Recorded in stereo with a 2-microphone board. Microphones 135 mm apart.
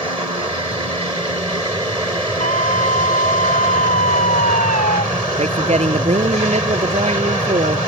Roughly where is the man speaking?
Right.